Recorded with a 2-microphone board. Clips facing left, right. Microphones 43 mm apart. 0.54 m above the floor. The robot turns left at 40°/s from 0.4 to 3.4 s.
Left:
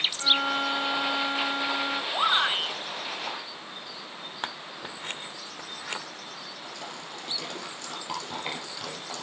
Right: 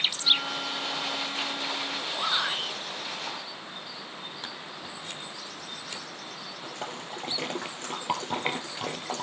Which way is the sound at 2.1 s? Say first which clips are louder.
Left 5 dB; 60° left (ahead or behind).